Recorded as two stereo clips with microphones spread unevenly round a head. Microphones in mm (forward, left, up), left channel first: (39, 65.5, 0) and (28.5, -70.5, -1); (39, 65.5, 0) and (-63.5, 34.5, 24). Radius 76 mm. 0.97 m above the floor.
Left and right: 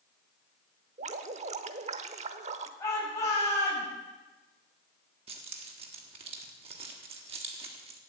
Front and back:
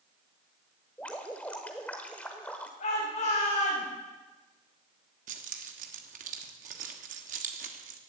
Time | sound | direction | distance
1.0 | dripping | 70° right | 0.9 m
2.8 | a shout | 20° left | 7 m
5.3 | keys jangling | 150° right | 1.4 m